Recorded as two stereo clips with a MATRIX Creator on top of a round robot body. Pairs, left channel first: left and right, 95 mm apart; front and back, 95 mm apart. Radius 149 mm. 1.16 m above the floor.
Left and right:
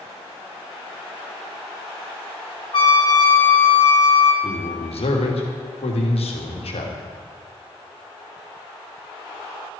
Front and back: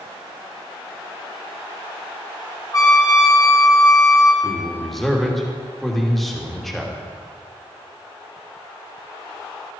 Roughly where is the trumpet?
Ahead left.